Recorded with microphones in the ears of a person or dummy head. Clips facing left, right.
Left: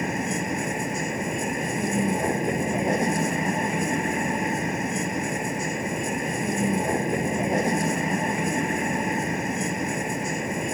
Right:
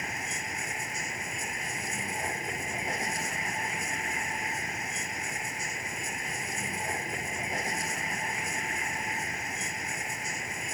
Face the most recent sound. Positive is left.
turn(degrees=55)  # may be behind; listen again after turning